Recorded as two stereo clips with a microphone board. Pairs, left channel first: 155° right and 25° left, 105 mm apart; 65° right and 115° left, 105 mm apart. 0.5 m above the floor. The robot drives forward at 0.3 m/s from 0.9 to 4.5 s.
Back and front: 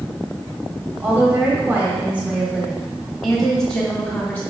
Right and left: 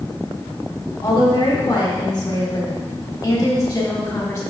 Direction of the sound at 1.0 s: 35° right.